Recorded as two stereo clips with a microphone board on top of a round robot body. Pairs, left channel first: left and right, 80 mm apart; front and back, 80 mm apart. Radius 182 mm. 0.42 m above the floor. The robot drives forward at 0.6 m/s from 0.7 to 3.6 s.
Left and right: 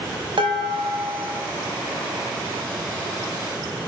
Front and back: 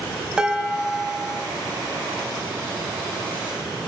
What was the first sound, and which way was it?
Dishes clattering, 100° right.